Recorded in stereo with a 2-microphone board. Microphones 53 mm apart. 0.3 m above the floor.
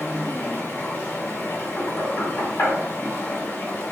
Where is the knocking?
45° left (ahead or behind), 1.6 m.